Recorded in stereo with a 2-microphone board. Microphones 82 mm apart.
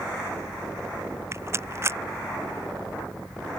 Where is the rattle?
35° right (ahead or behind).